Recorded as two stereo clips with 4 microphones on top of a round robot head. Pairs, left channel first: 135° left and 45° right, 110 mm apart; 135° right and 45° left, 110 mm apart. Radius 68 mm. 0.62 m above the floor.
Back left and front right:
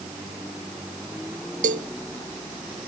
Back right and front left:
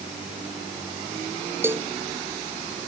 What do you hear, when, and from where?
1.6 s a cowbell: 30° right